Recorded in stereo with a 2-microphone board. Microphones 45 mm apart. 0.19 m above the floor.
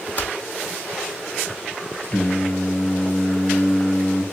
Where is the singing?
25° left (ahead or behind), 2.5 m.